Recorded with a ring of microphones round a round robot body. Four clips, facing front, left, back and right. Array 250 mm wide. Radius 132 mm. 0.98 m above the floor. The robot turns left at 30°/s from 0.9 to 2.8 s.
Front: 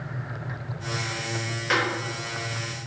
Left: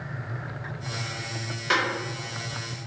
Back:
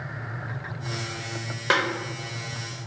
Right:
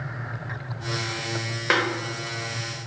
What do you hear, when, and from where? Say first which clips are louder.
1.7 s a snare drum: right 2 dB, back 2 dB; 130° right, 0.8 m; by 1.8 s 135° right, 0.8 m